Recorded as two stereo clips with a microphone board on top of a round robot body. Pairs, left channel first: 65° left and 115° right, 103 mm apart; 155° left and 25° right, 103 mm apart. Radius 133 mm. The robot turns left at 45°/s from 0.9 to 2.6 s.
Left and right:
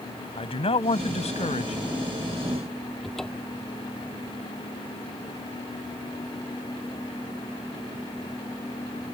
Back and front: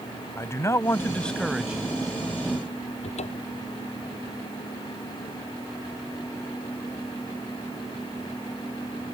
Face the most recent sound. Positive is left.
turn(degrees=155)